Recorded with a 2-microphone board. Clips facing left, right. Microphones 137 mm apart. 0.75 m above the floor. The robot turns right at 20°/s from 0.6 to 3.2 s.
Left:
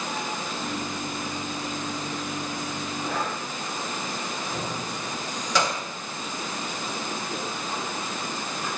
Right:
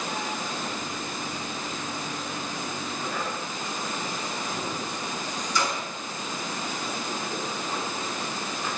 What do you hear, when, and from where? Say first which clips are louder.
3.1 s breathing: left 3 dB; 65° left (ahead or behind), 4 m
4.5 s keys jangling: left 1 dB; 75° left (ahead or behind), 3 m